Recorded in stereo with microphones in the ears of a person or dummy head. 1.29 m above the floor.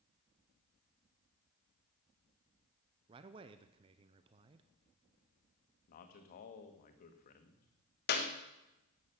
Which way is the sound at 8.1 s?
50° left (ahead or behind).